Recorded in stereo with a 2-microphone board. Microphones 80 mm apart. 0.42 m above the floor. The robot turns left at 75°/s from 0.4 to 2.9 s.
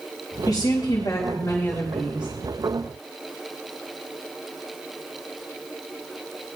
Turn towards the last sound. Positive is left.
turn(degrees=-70)